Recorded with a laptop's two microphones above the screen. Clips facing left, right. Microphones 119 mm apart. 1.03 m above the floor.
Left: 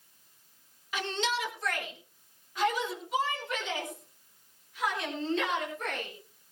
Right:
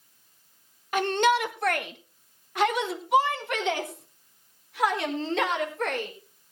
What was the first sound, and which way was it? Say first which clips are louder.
A shout: right 10 dB; 50° right (ahead or behind).